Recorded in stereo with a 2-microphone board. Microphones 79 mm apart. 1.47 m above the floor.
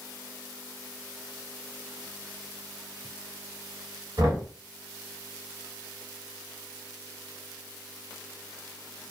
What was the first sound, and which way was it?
Knocking, 60° right (ahead or behind).